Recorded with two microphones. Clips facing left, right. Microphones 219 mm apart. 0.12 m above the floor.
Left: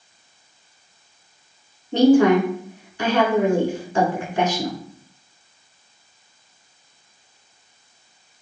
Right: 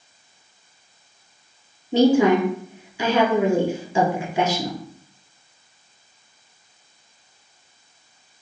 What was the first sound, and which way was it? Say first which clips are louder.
A woman speaking: left 2 dB; 10° right (ahead or behind).